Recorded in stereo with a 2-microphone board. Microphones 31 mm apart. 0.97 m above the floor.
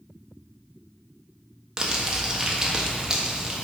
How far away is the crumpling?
About 1.2 m.